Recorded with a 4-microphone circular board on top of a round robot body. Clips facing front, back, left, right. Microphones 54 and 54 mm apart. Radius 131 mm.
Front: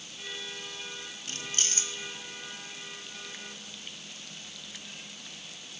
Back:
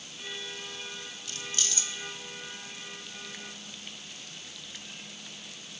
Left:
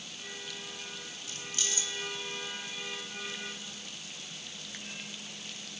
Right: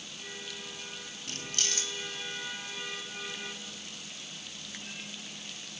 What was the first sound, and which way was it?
Keys jangling, 55° right.